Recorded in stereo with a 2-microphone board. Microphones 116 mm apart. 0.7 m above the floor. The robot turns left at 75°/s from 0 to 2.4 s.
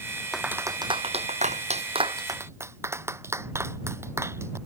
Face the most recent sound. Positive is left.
turn(degrees=-25)  # may be behind; listen again after turning